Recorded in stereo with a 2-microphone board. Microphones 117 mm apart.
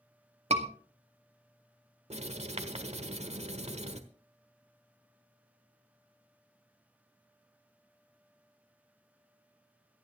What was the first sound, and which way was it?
A scream, 65° right (ahead or behind).